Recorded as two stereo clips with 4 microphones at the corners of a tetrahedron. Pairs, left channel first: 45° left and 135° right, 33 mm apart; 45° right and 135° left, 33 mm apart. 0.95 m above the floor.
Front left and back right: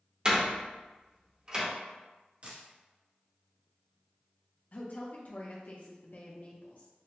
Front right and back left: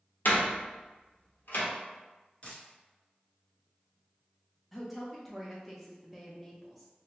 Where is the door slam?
70° right, 0.9 m.